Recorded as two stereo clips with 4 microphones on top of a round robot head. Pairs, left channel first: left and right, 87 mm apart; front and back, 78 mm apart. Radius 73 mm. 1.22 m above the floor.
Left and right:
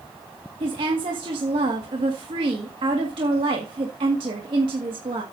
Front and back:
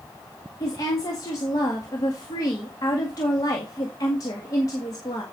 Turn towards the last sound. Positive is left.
turn(degrees=-55)